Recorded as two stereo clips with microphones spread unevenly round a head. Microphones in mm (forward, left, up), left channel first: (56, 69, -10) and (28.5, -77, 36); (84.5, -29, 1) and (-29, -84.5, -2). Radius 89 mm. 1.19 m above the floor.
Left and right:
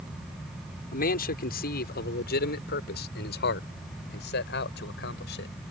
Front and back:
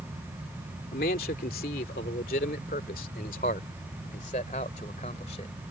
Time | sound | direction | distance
0.9 | a man speaking | 55° left | ?